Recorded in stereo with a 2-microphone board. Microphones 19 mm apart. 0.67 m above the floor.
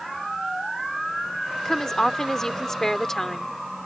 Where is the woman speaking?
30° left (ahead or behind).